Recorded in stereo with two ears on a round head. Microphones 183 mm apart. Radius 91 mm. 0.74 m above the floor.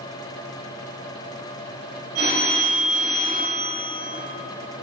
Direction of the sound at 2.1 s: 40° right (ahead or behind).